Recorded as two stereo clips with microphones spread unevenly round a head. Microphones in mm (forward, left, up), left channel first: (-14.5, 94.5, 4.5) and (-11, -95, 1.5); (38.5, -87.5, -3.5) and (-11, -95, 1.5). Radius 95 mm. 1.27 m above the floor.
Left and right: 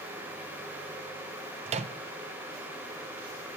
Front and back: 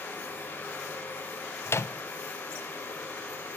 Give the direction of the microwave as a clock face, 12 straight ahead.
1 o'clock.